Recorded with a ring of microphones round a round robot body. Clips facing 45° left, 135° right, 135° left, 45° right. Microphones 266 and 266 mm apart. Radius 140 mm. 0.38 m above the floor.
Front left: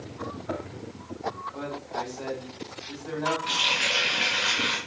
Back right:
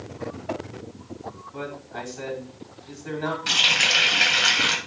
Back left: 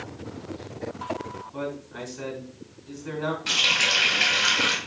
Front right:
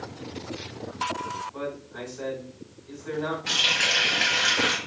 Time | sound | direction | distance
1.5 | a man speaking | straight behind | 5.5 m
3.5 | a running tap | 145° right | 1.9 m